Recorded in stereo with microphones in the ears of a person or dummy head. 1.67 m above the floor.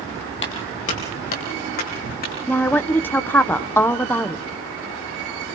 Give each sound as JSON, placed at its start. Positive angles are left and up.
{"t": 0.4, "sound": "footsteps", "side_deg": 35, "distance_m": 2.0}
{"t": 2.5, "sound": "a woman speaking", "side_deg": 10, "distance_m": 1.2}